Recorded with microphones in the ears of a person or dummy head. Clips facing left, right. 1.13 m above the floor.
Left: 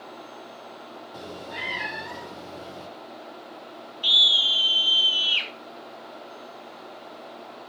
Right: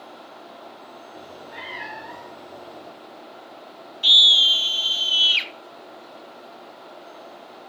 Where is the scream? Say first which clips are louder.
Right 4 dB; 30° right (ahead or behind), 1.4 m.